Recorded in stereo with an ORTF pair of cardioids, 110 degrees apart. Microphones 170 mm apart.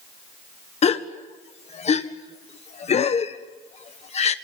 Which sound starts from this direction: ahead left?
A gasp, at 0.8 s.